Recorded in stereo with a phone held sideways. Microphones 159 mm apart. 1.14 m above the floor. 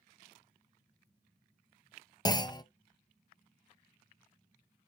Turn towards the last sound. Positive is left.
turn(degrees=25)  # may be behind; listen again after turning